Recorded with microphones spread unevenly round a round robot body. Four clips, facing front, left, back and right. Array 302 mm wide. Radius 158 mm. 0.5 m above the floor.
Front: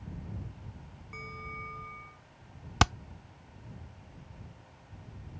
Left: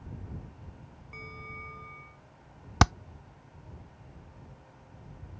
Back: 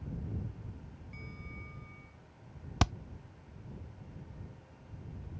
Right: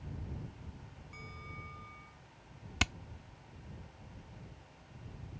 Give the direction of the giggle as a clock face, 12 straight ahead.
I don't hear a giggle.